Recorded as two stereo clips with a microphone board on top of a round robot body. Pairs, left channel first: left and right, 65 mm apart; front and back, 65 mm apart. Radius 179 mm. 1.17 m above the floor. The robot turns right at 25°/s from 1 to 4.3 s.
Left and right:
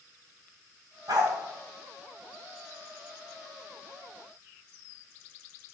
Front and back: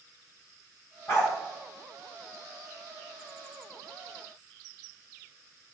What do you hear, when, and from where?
1.1 s a dog barking: 55° right, 2.5 m; by 1.3 s 50° right, 2.5 m